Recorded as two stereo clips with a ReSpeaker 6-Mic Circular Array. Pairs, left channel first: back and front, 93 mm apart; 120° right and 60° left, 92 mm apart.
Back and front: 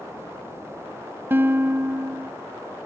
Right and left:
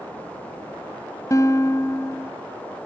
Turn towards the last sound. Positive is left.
turn(degrees=-65)